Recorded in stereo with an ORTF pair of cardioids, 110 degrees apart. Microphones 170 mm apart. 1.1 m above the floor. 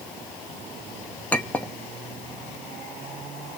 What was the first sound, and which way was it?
A clink, 10° left.